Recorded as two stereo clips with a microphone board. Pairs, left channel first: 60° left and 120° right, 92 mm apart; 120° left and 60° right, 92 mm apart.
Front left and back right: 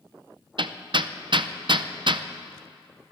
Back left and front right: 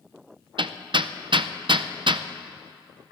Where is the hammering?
90° right, 0.5 m.